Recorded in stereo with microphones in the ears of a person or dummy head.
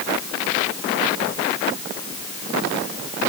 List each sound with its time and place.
Only background noise.